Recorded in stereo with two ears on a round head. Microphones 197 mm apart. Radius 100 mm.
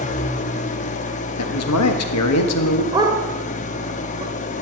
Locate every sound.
0.0 s an engine running: 35° left (ahead or behind), 0.8 m
1.4 s a man speaking: 90° left, 1.6 m
2.9 s a dog barking: 20° right (ahead or behind), 1.6 m